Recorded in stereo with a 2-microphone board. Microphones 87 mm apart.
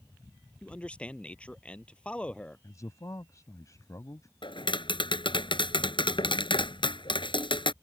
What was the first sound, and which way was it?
A man speaking, 15° left (ahead or behind).